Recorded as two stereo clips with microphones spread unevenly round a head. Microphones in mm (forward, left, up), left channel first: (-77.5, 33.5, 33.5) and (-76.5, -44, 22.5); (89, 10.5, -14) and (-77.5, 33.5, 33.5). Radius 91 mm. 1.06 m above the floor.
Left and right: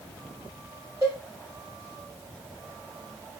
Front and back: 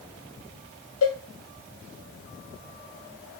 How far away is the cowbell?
About 0.8 m.